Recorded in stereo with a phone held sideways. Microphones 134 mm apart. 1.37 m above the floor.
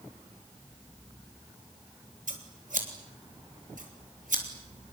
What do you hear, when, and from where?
2.3 s scissors: 75° right (ahead or behind), 3.5 m